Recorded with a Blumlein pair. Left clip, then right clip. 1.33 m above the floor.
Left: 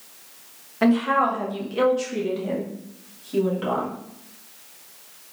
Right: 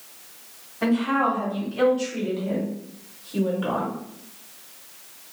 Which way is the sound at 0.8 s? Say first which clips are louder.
Left 3 dB; 25° left.